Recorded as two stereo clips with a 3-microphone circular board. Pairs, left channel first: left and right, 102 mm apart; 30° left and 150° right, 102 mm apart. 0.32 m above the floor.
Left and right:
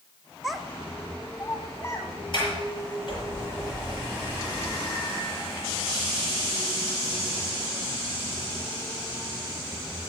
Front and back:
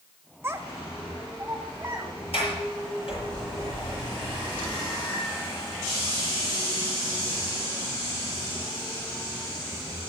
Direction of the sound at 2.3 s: 50° left.